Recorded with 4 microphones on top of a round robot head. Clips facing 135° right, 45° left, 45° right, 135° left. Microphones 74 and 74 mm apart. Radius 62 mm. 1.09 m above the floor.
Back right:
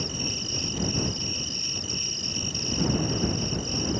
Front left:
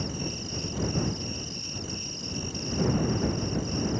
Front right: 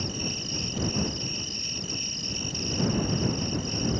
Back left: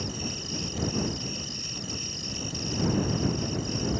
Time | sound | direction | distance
0.0 | an insect | 165° right | ?